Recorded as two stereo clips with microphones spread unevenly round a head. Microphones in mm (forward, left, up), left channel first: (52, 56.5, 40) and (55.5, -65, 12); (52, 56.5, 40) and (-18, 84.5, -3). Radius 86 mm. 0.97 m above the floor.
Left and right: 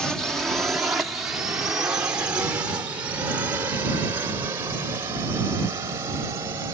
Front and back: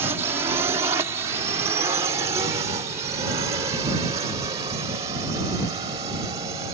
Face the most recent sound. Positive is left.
turn(degrees=-160)